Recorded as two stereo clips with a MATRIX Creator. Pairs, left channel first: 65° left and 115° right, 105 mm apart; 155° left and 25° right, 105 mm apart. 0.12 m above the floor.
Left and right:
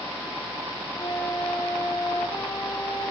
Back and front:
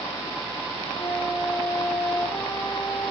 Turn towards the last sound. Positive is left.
turn(degrees=105)